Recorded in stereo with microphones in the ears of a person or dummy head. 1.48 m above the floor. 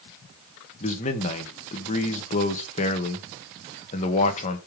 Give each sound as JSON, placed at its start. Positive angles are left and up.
{"t": 0.8, "sound": "a man speaking", "side_deg": 35, "distance_m": 1.5}